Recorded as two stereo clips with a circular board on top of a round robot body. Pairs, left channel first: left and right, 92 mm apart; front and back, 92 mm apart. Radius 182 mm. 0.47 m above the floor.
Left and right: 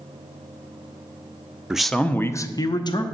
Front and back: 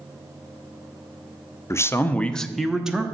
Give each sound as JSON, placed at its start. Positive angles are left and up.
{"t": 1.7, "sound": "a man speaking", "azimuth_deg": -15, "distance_m": 0.7}